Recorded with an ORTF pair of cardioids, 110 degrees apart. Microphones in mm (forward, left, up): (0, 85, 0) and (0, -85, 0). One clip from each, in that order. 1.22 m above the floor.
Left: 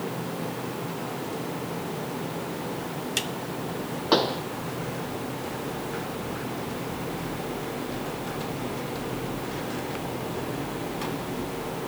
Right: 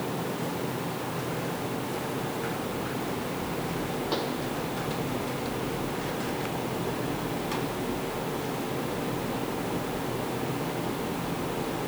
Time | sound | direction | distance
4.1 | a pop | 60° left | ?